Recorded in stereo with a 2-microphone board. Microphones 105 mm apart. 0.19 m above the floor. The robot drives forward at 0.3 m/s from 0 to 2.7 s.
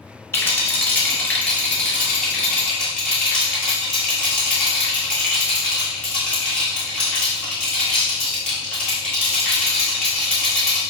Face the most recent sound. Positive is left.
turn(degrees=10)  # may be behind; listen again after turning